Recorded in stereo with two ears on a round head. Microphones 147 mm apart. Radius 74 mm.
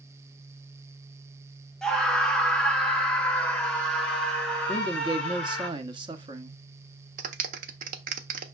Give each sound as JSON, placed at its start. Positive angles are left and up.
{"t": 1.8, "sound": "a scream", "side_deg": 5, "distance_m": 1.1}
{"t": 4.7, "sound": "a man speaking", "side_deg": -30, "distance_m": 1.0}
{"t": 7.2, "sound": "a clap", "side_deg": -55, "distance_m": 1.0}